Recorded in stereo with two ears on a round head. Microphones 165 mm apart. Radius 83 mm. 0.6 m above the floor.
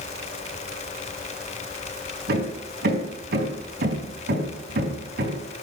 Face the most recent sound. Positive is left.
turn(degrees=-55)  # may be behind; listen again after turning